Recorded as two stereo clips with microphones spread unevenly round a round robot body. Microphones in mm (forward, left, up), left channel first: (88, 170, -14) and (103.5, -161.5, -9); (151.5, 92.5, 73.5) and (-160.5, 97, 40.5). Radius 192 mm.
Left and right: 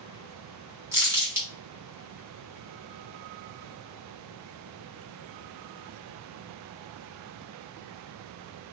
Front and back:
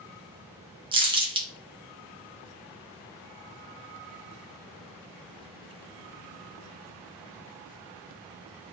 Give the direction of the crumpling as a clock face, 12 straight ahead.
5 o'clock.